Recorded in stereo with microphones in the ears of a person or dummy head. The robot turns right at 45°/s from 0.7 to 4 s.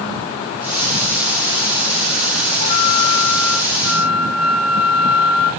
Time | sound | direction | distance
2.6 | a flute | 130° left | 1.3 m